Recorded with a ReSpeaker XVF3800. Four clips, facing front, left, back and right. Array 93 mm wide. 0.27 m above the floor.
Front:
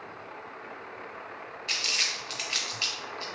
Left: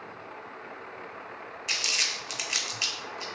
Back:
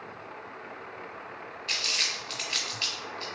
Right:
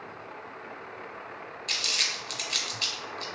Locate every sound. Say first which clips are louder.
1.7 s crumpling: left 1 dB, even; 85° left, 0.6 m